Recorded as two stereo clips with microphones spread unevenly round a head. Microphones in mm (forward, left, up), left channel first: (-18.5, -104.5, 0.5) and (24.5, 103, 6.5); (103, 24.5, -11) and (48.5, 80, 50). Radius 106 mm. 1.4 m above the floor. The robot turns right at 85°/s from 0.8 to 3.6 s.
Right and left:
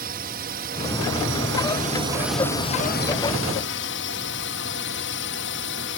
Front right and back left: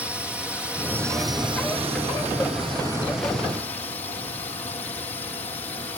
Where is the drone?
40° left; by 6.0 s 85° right.